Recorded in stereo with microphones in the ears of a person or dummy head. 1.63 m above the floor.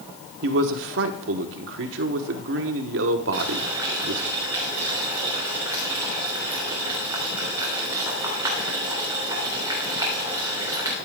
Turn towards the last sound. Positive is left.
turn(degrees=-20)  # may be behind; listen again after turning